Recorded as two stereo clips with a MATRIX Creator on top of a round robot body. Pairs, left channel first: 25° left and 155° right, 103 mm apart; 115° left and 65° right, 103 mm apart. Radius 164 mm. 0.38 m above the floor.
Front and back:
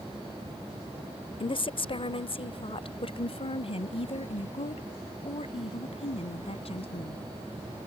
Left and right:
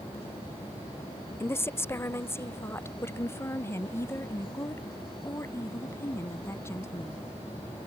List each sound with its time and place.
1.4 s a woman speaking: 50° left; by 7.2 s 45° left